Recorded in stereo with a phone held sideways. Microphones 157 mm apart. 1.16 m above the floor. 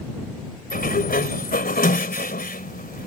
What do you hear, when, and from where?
0.7 s a sliding door: 75° left (ahead or behind)